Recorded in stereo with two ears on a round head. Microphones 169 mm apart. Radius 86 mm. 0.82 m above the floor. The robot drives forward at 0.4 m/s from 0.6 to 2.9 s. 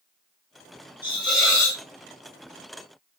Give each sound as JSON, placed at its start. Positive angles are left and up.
{"t": 1.0, "sound": "a hiss", "side_deg": 30, "distance_m": 2.0}